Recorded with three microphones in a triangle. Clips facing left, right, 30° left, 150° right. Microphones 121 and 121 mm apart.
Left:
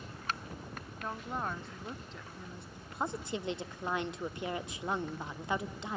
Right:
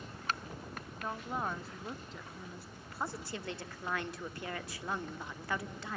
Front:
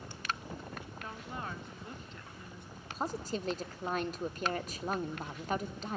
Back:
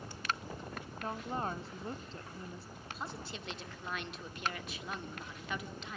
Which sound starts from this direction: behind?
A woman speaking, at 1.0 s.